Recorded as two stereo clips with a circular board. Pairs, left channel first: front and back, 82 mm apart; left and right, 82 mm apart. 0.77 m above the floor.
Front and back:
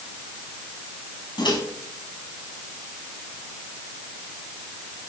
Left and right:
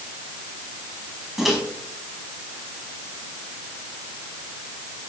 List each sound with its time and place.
1.4 s a microwave: 5° right, 5 m